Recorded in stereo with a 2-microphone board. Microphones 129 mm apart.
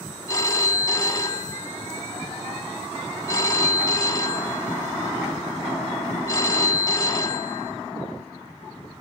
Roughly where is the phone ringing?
Left.